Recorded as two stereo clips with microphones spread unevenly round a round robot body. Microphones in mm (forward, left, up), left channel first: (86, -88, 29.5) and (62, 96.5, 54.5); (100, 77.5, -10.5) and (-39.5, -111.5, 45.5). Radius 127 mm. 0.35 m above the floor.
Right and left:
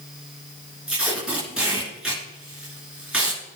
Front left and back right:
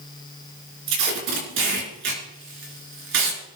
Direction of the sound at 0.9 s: 175° right.